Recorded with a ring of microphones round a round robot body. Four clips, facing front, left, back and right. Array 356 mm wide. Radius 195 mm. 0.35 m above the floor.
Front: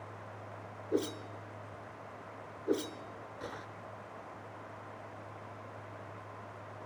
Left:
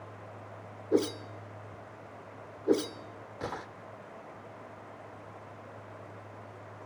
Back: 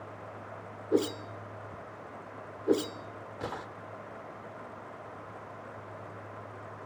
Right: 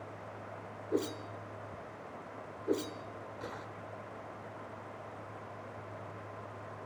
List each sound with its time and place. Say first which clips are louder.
0.9 s a whoosh: left 6 dB, back 6 dB; 130° left, 0.7 m